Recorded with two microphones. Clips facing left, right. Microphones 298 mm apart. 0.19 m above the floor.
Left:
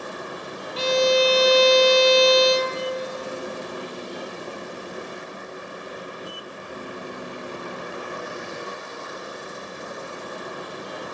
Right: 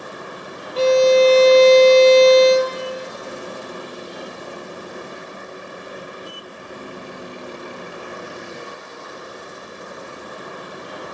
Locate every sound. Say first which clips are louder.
0.8 s a violin: right 7 dB; 65° right (ahead or behind), 0.9 m